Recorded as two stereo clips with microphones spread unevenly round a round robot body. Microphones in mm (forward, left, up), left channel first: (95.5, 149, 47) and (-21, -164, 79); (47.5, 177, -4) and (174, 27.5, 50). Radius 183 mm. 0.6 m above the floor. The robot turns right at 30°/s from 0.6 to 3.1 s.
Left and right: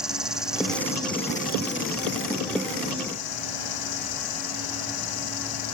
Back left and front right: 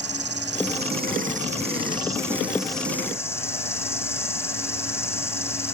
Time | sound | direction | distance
0.0 | an insect | 25° right | ?